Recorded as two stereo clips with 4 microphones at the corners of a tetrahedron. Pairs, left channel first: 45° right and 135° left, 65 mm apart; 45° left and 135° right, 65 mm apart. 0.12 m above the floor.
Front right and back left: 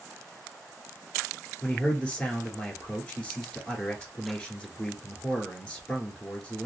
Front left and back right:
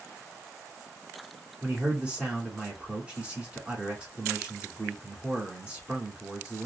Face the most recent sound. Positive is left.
turn(degrees=-95)